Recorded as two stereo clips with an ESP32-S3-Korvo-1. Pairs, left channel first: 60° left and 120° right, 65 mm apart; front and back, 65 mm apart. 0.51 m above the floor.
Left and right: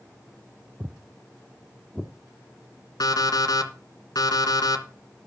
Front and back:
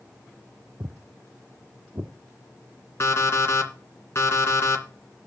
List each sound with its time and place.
0.8 s footsteps: straight behind, 0.8 m; by 2.1 s 160° left, 1.8 m
3.0 s an alarm clock: 45° left, 2.5 m